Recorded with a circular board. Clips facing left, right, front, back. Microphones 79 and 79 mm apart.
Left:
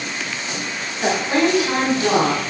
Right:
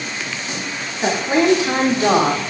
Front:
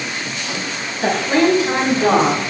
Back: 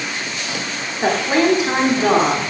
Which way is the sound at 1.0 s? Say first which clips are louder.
Right 2 dB, front 1 dB; 160° right.